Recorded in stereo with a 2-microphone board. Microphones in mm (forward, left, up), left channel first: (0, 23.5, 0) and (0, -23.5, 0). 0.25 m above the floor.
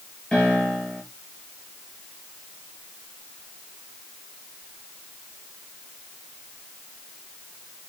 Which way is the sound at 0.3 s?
20° left (ahead or behind).